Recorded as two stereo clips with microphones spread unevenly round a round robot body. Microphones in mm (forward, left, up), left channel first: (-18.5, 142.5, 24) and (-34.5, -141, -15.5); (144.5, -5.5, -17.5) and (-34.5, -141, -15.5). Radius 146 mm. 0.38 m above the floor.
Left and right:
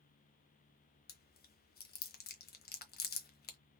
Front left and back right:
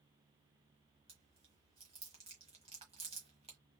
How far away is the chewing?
About 1.2 m.